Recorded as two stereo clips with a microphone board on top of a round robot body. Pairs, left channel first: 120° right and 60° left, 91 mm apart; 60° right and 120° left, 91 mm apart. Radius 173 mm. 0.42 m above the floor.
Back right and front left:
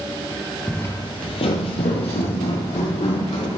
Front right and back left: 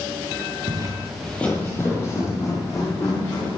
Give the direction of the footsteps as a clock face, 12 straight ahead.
7 o'clock.